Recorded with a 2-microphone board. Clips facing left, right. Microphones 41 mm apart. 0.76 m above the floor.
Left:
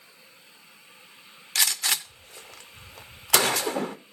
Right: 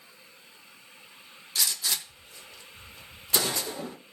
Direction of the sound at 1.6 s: 70° left (ahead or behind).